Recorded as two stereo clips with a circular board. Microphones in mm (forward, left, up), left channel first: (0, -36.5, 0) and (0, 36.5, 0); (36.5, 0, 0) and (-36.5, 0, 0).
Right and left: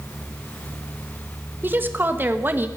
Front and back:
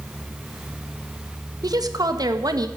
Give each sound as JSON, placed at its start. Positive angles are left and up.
{"t": 1.6, "sound": "a woman speaking", "azimuth_deg": 150, "distance_m": 1.4}